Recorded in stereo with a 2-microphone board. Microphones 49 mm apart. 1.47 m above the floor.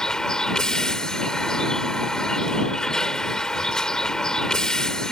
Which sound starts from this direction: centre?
A vehicle, at 0.0 s.